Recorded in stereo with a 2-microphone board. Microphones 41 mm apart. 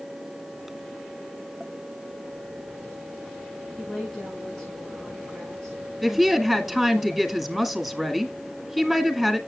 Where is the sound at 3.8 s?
10° left (ahead or behind), 6 m.